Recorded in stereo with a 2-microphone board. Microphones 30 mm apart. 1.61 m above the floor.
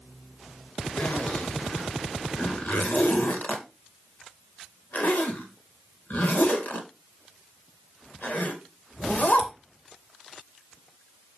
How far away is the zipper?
About 2 m.